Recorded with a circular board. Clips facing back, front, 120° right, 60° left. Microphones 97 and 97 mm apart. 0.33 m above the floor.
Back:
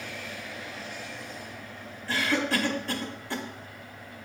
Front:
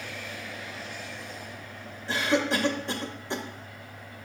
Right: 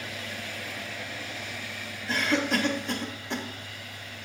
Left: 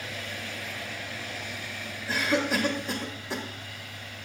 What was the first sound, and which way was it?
A cough, 15° right.